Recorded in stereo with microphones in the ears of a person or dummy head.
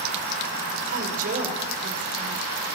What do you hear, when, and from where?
0.9 s a woman speaking: 50° right (ahead or behind), 5 m